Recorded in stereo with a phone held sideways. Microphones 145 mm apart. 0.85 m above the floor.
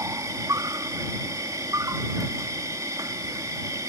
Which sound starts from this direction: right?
An insect, at 0.0 s.